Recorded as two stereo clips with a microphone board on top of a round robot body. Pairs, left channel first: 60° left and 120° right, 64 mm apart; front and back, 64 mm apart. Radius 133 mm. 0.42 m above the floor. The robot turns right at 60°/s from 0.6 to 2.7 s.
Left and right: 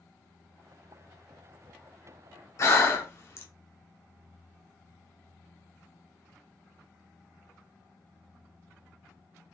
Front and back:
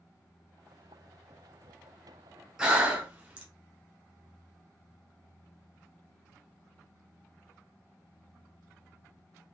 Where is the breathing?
100° left, 1.0 m; by 3.5 s 105° left, 1.0 m.